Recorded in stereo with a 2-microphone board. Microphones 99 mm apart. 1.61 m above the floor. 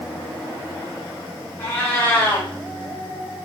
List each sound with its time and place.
1.6 s a cat meowing: 15° left (ahead or behind), 1.0 m